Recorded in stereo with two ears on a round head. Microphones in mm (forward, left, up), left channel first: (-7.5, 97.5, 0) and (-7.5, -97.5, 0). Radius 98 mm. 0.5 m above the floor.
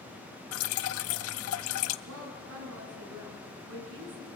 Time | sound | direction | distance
0.5 | dripping | 70° left (ahead or behind) | 0.6 m
2.1 | a woman speaking | 70° right (ahead or behind) | 6 m